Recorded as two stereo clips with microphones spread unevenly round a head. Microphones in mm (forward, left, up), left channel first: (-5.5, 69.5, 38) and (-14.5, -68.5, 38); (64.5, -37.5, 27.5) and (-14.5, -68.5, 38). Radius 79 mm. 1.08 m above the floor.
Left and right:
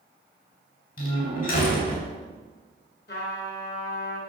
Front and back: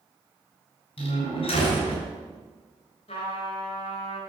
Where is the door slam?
55° left, 4 m.